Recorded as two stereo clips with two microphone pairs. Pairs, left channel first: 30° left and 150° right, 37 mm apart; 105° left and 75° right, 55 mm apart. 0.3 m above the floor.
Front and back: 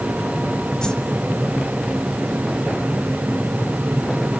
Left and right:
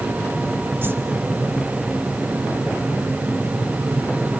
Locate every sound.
0.8 s a whoosh: 30° right, 1.7 m